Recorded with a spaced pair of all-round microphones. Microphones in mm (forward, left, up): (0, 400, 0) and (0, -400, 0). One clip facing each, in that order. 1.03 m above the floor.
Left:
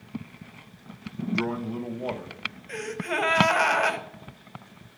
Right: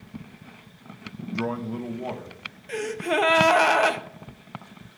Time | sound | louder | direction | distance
1.4 | a man speaking | right 2 dB | 20° right (ahead or behind) | 0.6 m
2.7 | a gasp | right 5 dB | 65° right (ahead or behind) | 0.8 m